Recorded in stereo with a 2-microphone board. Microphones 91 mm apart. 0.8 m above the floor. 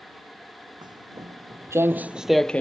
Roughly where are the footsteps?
Right.